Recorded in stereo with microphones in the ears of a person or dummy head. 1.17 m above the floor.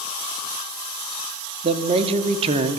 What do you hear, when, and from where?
1.6 s a man speaking: 35° right (ahead or behind), 2 m